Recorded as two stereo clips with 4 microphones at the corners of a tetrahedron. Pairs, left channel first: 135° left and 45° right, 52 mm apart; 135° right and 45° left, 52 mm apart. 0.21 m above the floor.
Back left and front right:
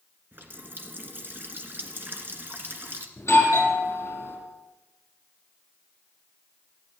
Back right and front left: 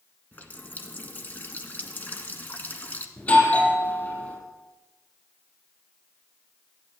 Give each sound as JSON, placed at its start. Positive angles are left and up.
{"t": 0.3, "sound": "a running tap", "azimuth_deg": -85, "distance_m": 1.8}
{"t": 3.2, "sound": "a doorbell", "azimuth_deg": 170, "distance_m": 7.5}